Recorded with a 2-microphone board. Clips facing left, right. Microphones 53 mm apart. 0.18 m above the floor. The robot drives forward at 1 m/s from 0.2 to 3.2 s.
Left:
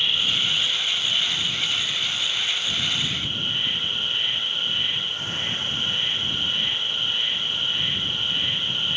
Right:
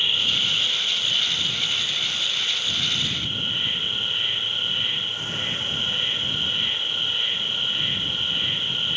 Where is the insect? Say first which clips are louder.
Even; 5° right (ahead or behind), 2.5 m; by 9.0 s centre (ahead or behind), 5.5 m.